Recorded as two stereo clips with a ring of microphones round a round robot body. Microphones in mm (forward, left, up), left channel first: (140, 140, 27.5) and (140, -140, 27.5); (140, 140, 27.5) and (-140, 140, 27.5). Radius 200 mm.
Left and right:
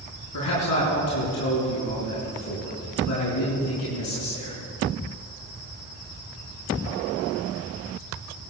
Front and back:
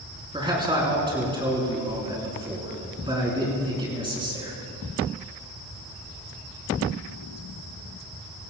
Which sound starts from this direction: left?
A man speaking, at 0.3 s.